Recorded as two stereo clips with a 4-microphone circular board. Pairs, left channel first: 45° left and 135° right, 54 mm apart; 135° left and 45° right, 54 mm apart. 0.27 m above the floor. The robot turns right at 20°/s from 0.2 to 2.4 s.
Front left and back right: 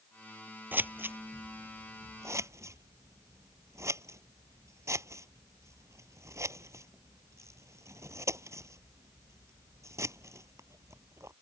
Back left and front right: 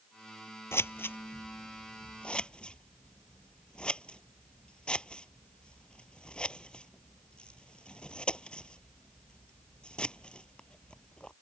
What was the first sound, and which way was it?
Scissors, 175° left.